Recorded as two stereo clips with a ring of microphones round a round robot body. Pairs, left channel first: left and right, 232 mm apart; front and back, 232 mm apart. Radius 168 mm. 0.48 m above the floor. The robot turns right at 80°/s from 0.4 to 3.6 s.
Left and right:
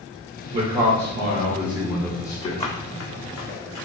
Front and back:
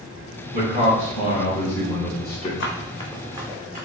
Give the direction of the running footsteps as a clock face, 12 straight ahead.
11 o'clock.